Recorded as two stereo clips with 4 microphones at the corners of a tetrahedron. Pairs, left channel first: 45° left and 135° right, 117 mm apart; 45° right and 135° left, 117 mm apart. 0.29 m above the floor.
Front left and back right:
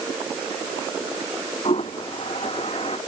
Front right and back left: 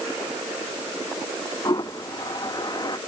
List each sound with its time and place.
1.6 s a toilet flushing: 10° left